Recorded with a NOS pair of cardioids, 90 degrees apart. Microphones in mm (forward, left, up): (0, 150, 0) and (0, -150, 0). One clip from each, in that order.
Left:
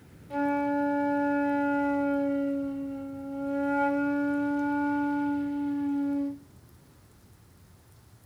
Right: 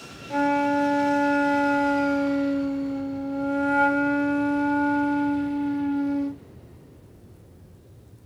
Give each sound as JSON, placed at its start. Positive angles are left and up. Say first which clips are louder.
{"t": 0.3, "sound": "a flute", "louder": "right 6 dB", "azimuth_deg": -50, "distance_m": 0.6}